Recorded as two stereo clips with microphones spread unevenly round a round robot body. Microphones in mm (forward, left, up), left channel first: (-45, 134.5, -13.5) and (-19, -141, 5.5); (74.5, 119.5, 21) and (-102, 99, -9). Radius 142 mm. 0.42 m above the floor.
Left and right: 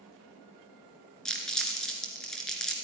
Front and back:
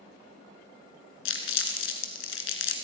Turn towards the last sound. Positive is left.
turn(degrees=10)